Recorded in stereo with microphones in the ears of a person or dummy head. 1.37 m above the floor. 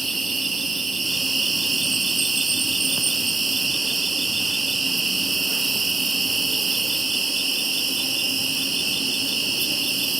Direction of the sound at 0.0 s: 5° left (ahead or behind).